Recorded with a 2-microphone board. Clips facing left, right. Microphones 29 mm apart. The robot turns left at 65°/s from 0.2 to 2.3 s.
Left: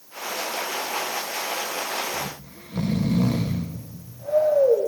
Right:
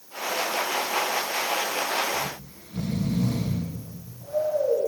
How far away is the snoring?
About 1.2 m.